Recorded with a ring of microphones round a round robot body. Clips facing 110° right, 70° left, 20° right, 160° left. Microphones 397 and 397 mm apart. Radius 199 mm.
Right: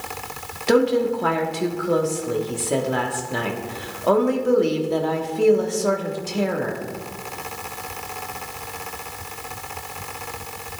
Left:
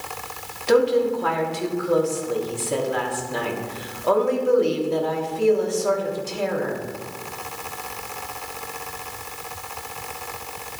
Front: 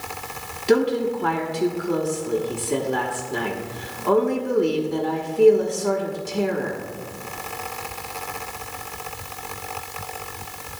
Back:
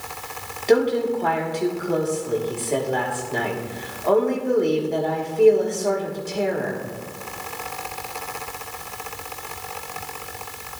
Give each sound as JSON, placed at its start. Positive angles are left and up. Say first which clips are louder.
{"t": 0.7, "sound": "a woman speaking", "louder": "even, back 1 dB", "azimuth_deg": -90, "distance_m": 1.4}